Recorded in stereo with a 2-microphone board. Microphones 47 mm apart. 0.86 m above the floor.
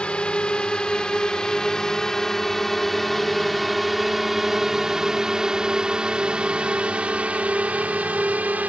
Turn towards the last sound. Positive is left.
turn(degrees=-35)  # may be behind; listen again after turning